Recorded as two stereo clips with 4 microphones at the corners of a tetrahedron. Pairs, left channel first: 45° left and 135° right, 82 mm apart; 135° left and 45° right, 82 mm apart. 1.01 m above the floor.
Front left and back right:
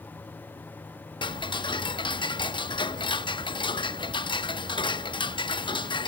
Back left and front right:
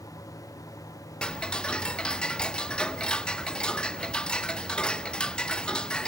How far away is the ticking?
About 0.8 m.